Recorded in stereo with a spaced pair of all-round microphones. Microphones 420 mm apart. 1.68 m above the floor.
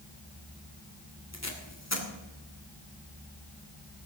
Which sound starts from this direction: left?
Tape being pulled, at 1.3 s.